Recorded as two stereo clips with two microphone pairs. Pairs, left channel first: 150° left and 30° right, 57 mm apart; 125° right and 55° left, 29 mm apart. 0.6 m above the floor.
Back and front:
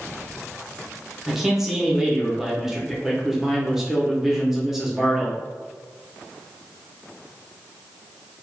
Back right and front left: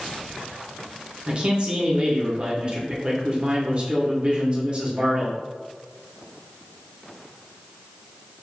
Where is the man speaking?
40° left, 0.7 m.